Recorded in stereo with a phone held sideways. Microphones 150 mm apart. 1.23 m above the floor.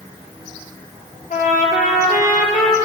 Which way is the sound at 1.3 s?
70° left (ahead or behind).